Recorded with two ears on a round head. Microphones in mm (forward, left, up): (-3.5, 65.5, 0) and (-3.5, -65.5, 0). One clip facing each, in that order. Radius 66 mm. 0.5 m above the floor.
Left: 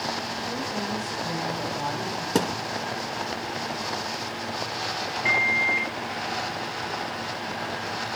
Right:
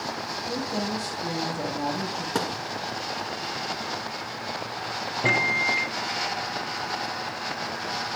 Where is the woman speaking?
35° right (ahead or behind), 6.5 m.